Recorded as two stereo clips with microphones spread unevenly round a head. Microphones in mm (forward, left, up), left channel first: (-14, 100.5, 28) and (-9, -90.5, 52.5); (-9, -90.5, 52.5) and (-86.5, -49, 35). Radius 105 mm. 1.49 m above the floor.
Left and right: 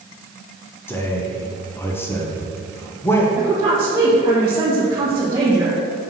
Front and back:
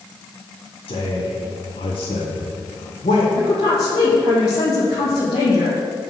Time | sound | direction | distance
0.9 | a man speaking | 15° left | 1.0 m
3.4 | a woman speaking | 20° right | 1.1 m